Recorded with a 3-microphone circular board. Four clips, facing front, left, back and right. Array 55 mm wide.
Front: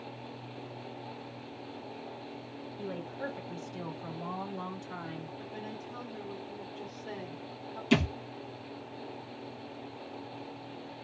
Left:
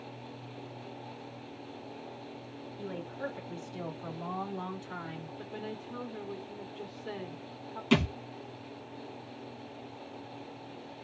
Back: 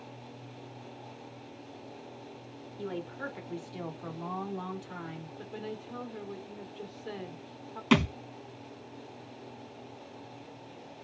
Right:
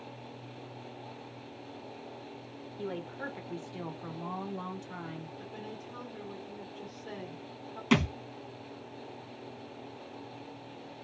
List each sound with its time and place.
2.8 s a woman speaking: 130° right, 1.3 m; by 5.3 s 100° left, 1.1 m
5.4 s a woman speaking: 130° left, 0.9 m
7.9 s a thud: 155° right, 1.6 m